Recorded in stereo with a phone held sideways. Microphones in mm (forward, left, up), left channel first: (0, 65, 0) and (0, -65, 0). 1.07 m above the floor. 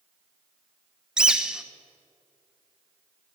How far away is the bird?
About 0.6 m.